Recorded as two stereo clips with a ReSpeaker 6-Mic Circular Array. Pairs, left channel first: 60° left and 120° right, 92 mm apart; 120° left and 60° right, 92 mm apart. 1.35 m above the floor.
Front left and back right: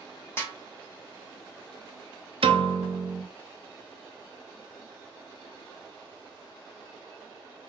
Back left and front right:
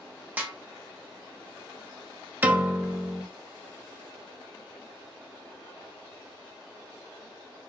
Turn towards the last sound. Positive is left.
turn(degrees=-130)